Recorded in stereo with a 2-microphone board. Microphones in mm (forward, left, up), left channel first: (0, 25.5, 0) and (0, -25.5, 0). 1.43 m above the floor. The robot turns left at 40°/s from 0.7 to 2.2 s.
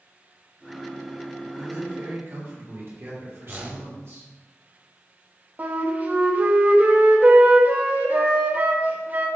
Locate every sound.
1.6 s a man speaking: 80° right, 2 m; by 4.3 s 55° right (ahead or behind), 2 m
3.5 s a whoosh: 30° right (ahead or behind), 0.9 m
5.6 s a flute: 35° right (ahead or behind), 0.8 m